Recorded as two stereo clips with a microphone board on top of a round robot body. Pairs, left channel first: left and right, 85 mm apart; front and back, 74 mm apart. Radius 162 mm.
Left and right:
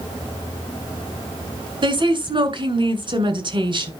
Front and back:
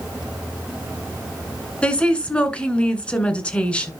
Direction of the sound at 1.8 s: 75° right.